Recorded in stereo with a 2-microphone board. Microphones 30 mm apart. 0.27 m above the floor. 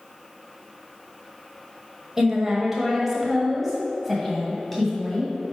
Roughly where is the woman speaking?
Centre.